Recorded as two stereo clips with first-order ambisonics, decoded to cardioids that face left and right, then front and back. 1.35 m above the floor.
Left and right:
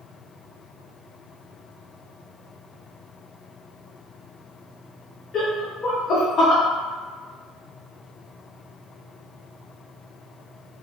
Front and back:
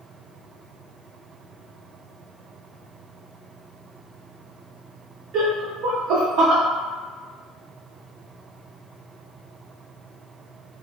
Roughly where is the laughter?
Behind left.